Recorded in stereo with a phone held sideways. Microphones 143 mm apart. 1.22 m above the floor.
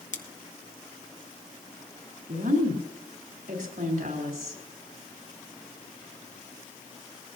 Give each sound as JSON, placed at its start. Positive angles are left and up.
{"t": 0.1, "sound": "scissors", "side_deg": 60, "distance_m": 1.2}
{"t": 2.3, "sound": "a woman speaking", "side_deg": -85, "distance_m": 4.0}